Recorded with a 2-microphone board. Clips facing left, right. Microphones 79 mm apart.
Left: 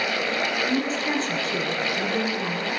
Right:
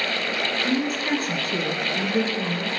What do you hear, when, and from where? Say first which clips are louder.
0.6 s a woman speaking: right 1 dB; 55° right (ahead or behind), 2.5 m